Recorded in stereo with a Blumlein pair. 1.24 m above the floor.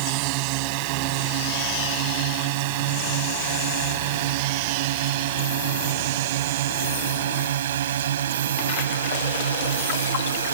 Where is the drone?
45° right; by 10.6 s 65° right.